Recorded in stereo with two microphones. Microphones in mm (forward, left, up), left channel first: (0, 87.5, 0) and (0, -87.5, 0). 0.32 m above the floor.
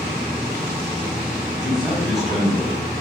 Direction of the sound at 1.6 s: Centre (ahead or behind).